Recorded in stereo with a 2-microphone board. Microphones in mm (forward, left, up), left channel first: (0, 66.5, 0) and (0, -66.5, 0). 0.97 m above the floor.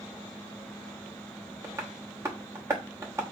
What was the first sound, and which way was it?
Tapping, 20° right (ahead or behind).